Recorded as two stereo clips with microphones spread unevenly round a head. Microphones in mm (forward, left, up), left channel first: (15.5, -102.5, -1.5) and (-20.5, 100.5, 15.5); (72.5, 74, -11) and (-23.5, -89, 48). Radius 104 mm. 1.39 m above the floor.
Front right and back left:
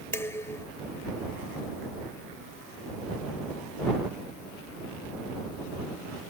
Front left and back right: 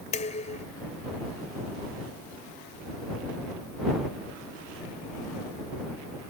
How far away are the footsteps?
I don't hear footsteps.